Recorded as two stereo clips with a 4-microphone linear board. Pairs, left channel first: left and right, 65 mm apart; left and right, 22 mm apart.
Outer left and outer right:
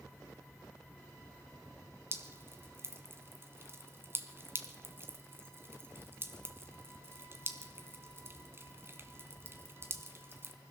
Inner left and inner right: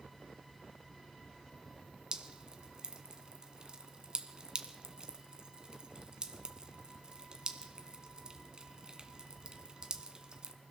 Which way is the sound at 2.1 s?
40° right (ahead or behind).